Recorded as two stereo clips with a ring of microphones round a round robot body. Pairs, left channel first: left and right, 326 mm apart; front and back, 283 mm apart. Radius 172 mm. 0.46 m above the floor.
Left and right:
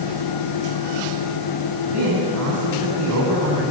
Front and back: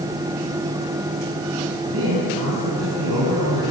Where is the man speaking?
135° right, 4.5 m.